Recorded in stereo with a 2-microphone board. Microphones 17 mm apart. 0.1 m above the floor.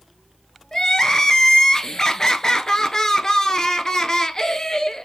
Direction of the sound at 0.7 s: 35° left (ahead or behind).